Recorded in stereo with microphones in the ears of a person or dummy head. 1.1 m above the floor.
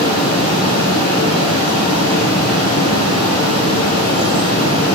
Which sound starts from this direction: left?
Running water, at 0.0 s.